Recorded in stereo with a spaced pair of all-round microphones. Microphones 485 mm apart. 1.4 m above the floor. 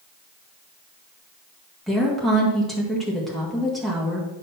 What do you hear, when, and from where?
1.9 s a woman speaking: centre (ahead or behind), 1.7 m